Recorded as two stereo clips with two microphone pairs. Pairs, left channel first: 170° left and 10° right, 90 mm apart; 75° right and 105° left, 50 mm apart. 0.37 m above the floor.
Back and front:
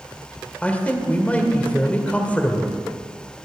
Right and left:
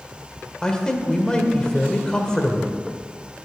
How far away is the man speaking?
About 1.5 m.